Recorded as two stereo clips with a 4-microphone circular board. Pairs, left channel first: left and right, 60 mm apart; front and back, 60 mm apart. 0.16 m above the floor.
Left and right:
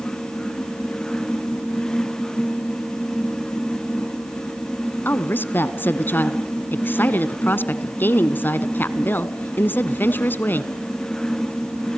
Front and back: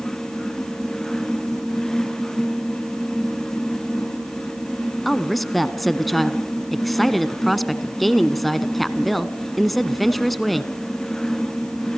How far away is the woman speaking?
About 1.4 m.